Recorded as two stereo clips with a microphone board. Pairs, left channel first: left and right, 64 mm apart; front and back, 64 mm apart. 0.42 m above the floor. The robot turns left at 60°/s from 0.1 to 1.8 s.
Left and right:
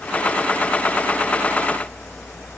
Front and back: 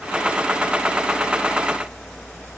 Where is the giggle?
I don't hear a giggle.